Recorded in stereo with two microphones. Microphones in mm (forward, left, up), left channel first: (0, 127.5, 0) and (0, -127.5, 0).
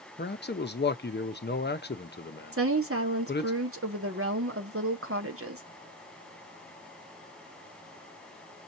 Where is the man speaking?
40° left (ahead or behind), 0.7 m.